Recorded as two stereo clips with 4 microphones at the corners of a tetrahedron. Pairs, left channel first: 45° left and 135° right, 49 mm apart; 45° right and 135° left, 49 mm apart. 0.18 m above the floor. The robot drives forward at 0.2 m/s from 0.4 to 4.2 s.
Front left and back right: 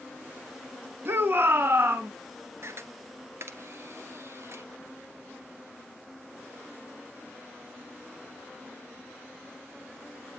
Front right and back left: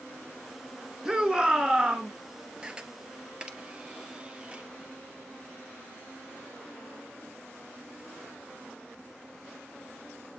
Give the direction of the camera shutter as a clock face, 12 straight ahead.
5 o'clock.